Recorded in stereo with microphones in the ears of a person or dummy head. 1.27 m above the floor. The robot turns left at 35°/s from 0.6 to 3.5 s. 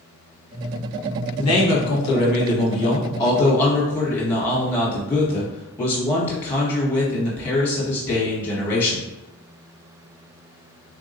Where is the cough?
I don't hear a cough.